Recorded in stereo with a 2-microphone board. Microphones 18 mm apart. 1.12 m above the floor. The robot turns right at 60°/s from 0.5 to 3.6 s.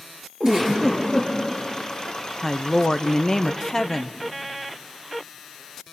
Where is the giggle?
35° right, 7.5 m; by 1.3 s 15° left, 7.5 m.